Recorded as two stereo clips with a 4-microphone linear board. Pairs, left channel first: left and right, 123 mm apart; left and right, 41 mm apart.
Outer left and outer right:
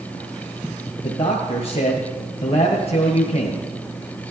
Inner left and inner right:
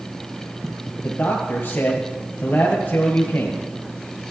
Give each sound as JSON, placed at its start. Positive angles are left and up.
{"t": 1.0, "sound": "a man speaking", "side_deg": 50, "distance_m": 1.8}